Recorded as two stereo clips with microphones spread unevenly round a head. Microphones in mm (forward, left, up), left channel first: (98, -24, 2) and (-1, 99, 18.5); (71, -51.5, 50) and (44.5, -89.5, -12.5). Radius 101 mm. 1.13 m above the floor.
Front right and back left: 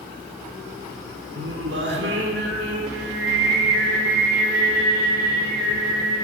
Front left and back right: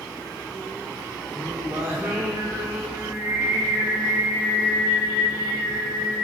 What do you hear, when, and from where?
1.4 s singing: 170° left, 3 m